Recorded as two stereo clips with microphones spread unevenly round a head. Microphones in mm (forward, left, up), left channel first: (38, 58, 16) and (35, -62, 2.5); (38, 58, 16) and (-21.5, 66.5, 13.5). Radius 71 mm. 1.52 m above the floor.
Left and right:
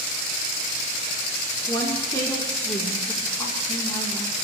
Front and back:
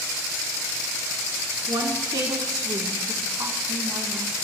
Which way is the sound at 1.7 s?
160° left.